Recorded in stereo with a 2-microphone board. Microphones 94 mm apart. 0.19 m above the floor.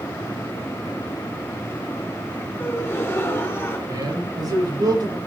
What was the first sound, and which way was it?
A gasp, 30° left (ahead or behind).